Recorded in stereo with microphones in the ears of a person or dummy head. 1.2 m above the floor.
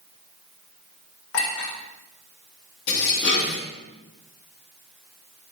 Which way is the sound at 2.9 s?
65° left (ahead or behind).